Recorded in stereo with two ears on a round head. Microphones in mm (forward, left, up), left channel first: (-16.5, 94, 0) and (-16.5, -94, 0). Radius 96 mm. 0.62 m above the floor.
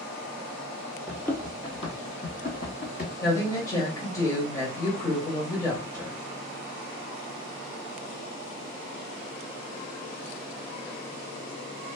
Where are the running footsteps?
Centre (ahead or behind), 0.6 m; by 3.1 s 45° left (ahead or behind), 1.3 m.